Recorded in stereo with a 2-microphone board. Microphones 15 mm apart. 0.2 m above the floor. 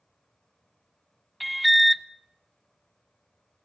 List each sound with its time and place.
1.4 s an alarm: centre (ahead or behind), 0.8 m